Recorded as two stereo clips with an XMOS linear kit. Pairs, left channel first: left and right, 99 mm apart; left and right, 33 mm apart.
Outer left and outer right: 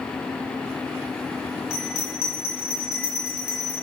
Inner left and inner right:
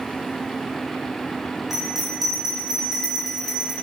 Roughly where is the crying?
I don't hear crying.